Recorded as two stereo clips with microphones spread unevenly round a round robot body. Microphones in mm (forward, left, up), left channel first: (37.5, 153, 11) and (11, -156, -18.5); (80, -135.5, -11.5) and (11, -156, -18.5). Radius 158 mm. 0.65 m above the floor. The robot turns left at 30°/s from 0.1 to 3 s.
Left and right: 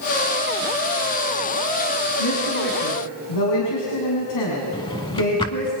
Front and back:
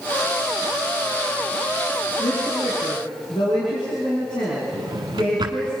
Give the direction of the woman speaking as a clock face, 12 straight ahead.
9 o'clock.